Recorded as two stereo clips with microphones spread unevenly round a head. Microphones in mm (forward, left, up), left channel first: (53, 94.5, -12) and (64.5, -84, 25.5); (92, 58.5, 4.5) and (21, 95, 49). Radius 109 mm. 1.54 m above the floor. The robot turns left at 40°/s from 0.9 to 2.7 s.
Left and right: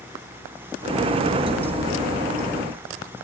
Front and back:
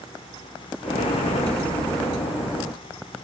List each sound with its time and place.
Only background noise.